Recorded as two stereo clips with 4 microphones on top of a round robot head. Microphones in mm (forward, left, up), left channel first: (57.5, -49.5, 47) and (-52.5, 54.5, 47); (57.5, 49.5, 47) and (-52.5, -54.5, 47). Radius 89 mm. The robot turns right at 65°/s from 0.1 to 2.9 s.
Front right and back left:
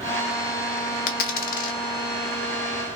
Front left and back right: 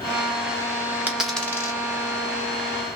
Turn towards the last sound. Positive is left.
turn(degrees=60)